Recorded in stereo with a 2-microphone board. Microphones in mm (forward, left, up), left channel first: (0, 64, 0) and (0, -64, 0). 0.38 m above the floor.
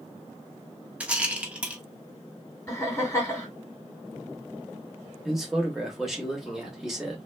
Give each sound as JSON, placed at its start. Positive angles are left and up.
{"t": 1.0, "sound": "a rattle", "side_deg": -10, "distance_m": 0.8}
{"t": 2.7, "sound": "laughter", "side_deg": 20, "distance_m": 1.6}
{"t": 5.2, "sound": "a man speaking", "side_deg": 0, "distance_m": 0.9}